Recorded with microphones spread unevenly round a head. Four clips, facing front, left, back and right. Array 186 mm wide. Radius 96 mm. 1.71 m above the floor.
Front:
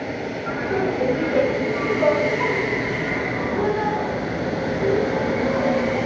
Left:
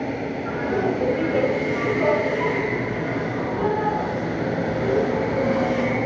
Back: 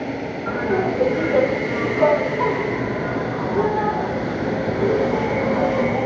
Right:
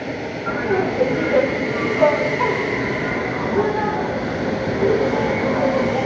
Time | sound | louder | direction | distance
0.5 | laughter | right 4 dB, back 3 dB | 125° right | 3 m